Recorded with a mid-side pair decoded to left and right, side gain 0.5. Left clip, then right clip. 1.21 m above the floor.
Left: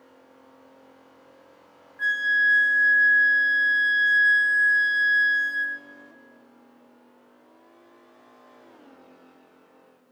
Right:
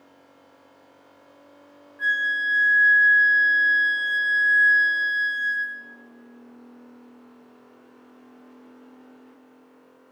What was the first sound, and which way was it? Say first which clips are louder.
A flute: left 1 dB; 25° left.